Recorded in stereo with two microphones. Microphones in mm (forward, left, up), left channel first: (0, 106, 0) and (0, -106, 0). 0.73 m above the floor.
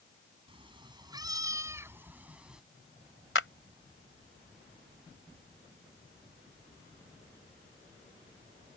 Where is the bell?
I don't hear a bell.